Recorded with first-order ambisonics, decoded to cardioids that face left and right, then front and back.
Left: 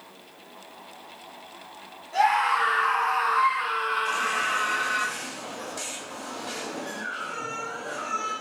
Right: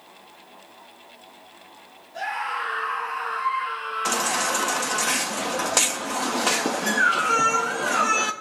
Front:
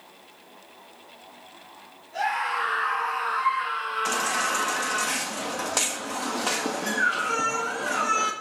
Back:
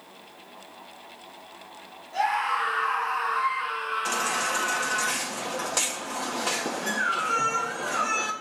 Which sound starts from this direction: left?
A scream, at 2.1 s.